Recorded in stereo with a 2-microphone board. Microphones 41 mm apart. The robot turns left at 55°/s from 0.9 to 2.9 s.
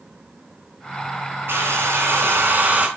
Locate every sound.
1.5 s a hair dryer: 65° right, 4.5 m; by 2.9 s 140° right, 4.5 m